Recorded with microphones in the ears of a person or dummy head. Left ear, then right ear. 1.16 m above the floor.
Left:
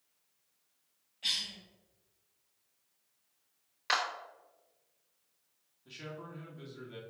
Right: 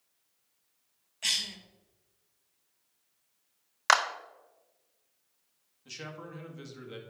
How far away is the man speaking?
About 1.8 m.